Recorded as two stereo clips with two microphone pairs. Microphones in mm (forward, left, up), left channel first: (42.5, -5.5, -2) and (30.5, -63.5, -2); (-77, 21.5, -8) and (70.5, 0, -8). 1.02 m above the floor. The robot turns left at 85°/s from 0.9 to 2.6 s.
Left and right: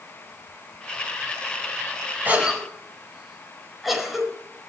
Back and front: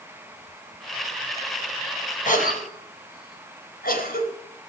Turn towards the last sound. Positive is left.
turn(degrees=170)